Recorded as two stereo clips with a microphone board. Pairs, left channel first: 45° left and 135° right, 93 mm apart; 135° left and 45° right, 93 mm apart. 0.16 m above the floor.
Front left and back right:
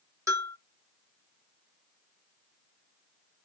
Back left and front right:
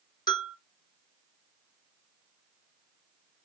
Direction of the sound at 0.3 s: 170° left.